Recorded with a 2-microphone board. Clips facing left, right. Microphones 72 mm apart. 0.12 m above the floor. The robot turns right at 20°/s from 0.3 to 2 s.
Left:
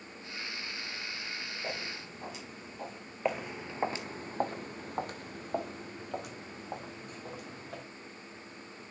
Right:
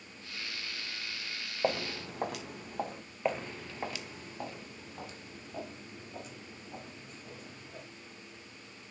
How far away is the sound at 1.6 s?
About 1.2 m.